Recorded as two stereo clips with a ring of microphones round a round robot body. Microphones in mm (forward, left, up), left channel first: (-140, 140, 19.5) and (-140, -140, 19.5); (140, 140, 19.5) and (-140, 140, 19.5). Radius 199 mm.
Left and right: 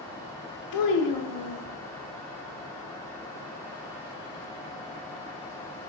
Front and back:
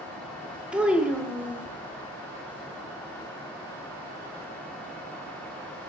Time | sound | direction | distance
0.7 | a child speaking | 95° left | 0.5 m